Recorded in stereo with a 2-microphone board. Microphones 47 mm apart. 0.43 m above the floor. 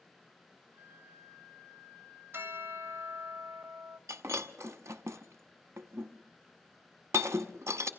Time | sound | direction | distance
0.7 | a flute | 55° right (ahead or behind) | 7.5 m
2.3 | a bell | 50° right (ahead or behind) | 1.9 m
4.1 | breaking glass | 85° right | 1.0 m